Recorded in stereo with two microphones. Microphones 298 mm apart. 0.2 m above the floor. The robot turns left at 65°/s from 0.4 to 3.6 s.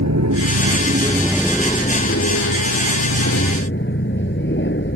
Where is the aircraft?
115° right; by 5.0 s 40° left.